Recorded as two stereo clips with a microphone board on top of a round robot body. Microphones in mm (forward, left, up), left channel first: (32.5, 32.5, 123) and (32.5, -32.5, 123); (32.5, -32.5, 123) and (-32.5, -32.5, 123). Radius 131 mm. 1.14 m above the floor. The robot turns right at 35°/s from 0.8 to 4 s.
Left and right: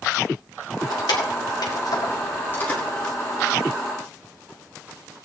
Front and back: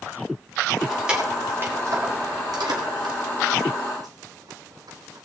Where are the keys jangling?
95° left, 1.9 m; by 5.3 s 155° right, 1.9 m.